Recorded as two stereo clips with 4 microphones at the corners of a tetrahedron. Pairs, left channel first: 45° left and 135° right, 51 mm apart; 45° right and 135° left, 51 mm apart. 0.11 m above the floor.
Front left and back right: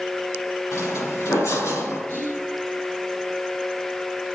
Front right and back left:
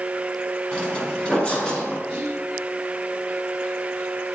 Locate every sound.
0.7 s footsteps: 15° left, 4 m
2.1 s whispering: 15° left, 2.5 m